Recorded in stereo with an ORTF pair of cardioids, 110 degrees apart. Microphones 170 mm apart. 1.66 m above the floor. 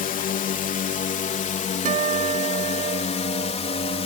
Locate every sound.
0.0 s a drone: 55° left; by 4.1 s 35° left
1.9 s a guitar: 45° right